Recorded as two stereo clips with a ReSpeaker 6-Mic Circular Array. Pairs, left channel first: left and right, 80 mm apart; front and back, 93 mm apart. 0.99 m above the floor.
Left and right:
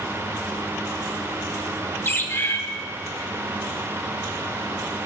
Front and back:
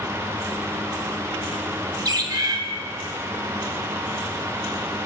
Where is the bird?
145° left, 0.9 m.